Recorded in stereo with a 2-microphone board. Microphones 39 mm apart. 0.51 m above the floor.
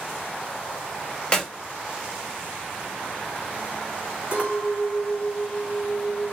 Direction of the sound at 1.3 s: 25° left (ahead or behind).